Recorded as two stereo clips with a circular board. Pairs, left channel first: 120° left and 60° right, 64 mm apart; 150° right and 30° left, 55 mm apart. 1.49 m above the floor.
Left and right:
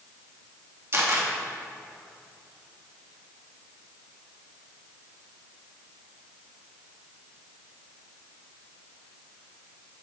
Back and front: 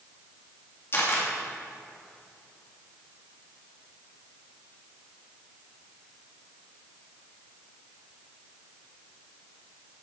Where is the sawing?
No sawing in this recording.